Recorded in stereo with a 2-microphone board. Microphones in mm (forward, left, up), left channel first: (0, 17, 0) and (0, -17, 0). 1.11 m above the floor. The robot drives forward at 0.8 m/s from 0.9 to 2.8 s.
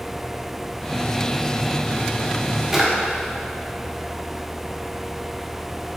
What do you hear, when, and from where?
2.7 s a drawer: 15° right (ahead or behind), 1.1 m